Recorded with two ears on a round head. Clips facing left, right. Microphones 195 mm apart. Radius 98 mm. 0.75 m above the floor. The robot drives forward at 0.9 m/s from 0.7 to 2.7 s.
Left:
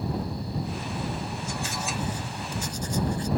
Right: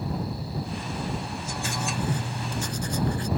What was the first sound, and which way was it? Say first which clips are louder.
Writing: right 5 dB; 50° right (ahead or behind).